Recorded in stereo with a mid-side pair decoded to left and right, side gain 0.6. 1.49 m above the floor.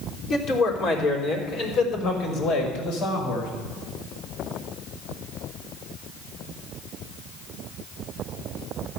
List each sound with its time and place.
0.3 s a man speaking: 55° left, 4 m; by 3.5 s 70° left, 5.5 m